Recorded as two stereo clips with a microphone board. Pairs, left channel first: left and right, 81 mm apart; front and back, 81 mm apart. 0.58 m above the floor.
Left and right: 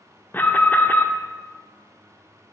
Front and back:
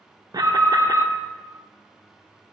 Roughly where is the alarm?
Behind left.